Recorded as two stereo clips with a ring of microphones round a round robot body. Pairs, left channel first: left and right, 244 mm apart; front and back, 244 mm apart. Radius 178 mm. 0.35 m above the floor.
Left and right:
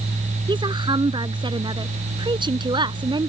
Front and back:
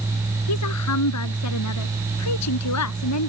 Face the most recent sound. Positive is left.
turn(degrees=-20)